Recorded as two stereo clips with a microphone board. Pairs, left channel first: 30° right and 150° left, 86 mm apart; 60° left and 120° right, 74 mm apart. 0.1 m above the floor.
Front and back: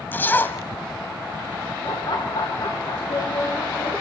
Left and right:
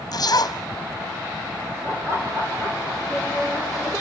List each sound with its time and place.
0.1 s a zipper: 35° left, 1.9 m
1.8 s laughter: 60° right, 8.5 m